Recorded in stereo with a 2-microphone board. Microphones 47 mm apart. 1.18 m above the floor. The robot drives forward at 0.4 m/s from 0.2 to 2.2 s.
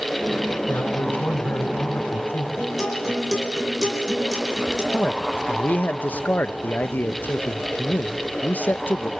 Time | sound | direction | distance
0.7 | a man speaking | 45° left (ahead or behind) | 4.5 m
2.6 | a guitar | 5° right (ahead or behind) | 5 m
4.9 | a man speaking | 35° left (ahead or behind) | 0.8 m